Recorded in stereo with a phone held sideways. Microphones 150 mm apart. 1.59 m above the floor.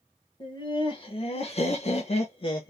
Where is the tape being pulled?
I don't hear tape being pulled.